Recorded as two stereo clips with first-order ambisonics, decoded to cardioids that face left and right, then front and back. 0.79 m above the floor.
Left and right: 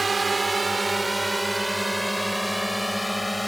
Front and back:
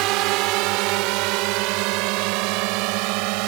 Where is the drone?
165° right; by 3.5 s 175° left.